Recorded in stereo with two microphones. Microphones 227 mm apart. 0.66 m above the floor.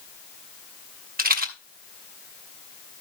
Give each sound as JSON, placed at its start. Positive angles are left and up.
{"t": 1.2, "sound": "a rattle", "side_deg": -40, "distance_m": 1.1}